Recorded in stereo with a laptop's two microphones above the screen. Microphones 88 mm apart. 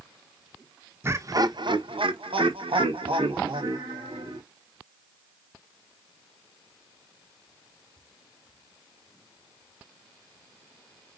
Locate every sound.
1.0 s laughter: 25° right (ahead or behind), 0.7 m; by 4.4 s 65° right (ahead or behind), 2 m